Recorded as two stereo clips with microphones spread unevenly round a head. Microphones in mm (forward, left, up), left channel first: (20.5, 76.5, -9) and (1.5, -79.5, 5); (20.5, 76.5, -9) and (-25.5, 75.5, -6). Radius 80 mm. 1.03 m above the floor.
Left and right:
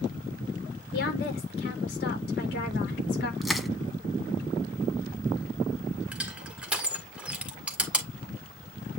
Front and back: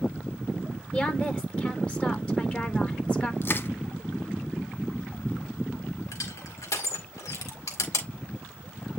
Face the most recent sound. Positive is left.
turn(degrees=-15)